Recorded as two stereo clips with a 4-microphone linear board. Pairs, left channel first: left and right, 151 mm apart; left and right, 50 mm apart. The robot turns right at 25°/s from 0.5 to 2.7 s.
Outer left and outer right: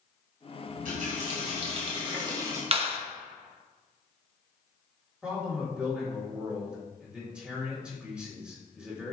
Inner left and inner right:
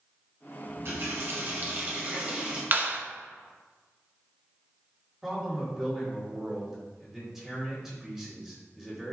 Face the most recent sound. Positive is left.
turn(degrees=-5)  # may be behind; listen again after turning